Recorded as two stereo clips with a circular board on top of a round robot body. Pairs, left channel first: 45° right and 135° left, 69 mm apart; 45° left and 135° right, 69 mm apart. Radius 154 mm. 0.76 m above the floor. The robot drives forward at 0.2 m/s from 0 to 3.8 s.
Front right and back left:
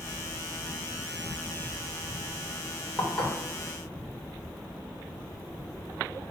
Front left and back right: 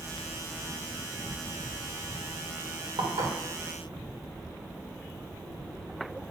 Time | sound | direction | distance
3.0 | dishes clattering | 125° right | 1.7 m